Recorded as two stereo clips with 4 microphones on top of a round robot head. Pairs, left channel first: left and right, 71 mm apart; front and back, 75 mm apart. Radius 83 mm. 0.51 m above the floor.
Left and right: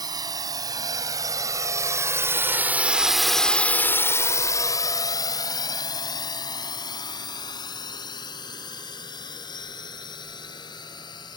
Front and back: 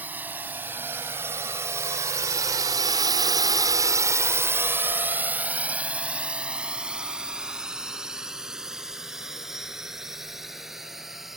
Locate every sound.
0.0 s a drone: 110° right; by 11.4 s 95° left